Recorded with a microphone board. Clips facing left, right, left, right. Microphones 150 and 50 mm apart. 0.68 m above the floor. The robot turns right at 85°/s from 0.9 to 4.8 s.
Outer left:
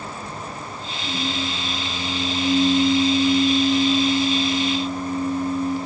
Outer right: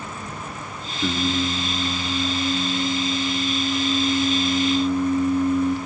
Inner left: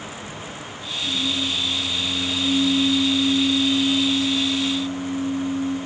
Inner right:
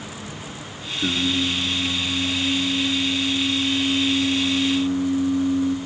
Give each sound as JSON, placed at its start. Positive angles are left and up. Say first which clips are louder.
{"t": 1.0, "sound": "singing", "louder": "outer right 5 dB, inner right 3 dB", "azimuth_deg": -80, "distance_m": 4.5}